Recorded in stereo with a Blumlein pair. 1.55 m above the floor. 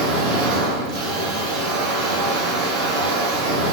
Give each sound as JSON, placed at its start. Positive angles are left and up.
{"t": 0.0, "sound": "a machine running", "azimuth_deg": -45, "distance_m": 2.0}